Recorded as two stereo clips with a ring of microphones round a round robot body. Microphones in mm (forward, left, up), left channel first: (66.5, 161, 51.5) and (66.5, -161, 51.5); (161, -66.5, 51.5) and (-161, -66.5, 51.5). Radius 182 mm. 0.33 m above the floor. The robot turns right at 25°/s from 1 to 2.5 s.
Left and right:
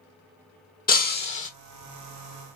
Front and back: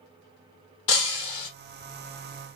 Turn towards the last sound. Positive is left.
turn(degrees=65)